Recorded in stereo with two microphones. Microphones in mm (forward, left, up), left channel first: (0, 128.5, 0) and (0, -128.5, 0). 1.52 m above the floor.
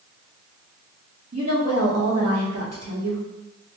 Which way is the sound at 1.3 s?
70° right (ahead or behind).